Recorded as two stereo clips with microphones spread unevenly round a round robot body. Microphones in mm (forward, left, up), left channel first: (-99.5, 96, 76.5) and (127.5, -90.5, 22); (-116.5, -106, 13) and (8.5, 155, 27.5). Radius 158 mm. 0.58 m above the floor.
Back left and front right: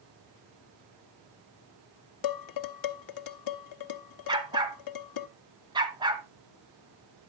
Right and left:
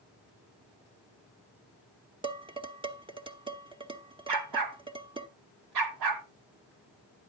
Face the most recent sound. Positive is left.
turn(degrees=35)